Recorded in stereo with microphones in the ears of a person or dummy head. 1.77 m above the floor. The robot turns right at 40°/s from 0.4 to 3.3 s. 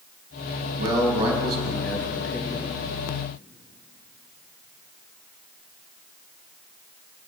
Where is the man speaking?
50° right, 3.5 m; by 2.7 s 25° left, 3.5 m.